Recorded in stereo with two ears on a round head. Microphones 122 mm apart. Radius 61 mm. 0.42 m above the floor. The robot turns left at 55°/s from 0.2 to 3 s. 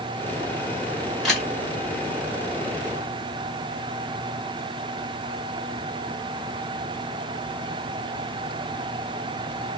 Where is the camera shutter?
Centre (ahead or behind), 1.3 m; by 1.5 s 10° left (ahead or behind), 1.3 m.